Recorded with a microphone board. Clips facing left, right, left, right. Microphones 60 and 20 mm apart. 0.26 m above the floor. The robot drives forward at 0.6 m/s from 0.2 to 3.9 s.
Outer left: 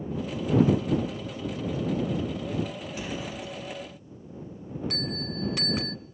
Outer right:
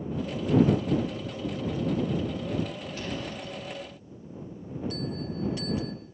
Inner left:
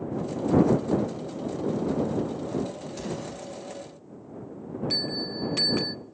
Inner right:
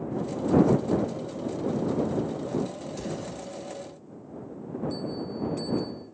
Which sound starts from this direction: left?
A bell, at 4.9 s.